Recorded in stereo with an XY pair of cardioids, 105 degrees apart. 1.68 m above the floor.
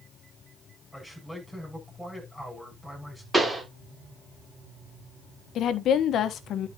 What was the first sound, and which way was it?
A man speaking, 5° left.